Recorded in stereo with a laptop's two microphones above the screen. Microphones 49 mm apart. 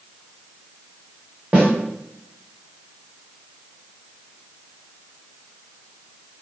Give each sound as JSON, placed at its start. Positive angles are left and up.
{"t": 1.5, "sound": "a snare drum", "side_deg": -25, "distance_m": 0.7}